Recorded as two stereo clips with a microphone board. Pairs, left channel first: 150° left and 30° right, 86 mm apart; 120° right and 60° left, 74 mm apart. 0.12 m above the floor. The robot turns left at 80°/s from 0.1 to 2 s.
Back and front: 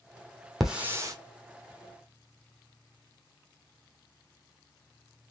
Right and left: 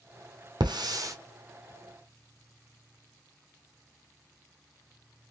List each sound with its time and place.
0.6 s a hiss: 60° left, 1.1 m; by 1.1 s 15° left, 1.1 m